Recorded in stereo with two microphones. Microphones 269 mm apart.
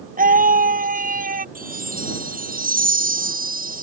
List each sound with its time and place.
0.2 s a scream: 30° right (ahead or behind)
1.6 s a chime: 30° right (ahead or behind)